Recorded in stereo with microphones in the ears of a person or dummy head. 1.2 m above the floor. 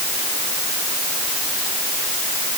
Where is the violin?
I don't hear a violin.